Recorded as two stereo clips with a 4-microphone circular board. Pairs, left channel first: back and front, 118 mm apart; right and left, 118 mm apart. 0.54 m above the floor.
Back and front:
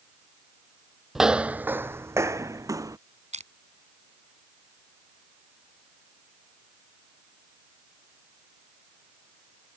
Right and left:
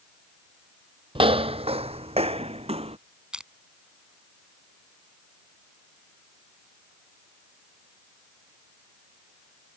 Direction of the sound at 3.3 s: 10° left.